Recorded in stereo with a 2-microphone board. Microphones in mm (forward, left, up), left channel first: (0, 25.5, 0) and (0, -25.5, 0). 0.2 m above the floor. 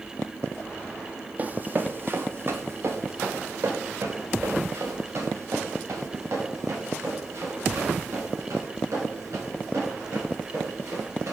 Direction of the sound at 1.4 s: 30° right (ahead or behind).